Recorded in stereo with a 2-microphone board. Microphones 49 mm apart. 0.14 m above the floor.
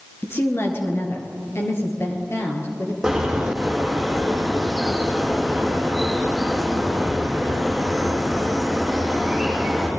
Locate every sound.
0.2 s a woman speaking: 50° left (ahead or behind), 2.5 m; by 2.9 s 60° left (ahead or behind), 4 m
3.0 s a bird: 5° right (ahead or behind), 5 m